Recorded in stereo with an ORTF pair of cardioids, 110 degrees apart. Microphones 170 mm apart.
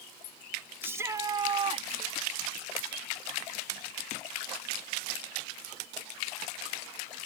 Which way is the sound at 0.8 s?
15° right.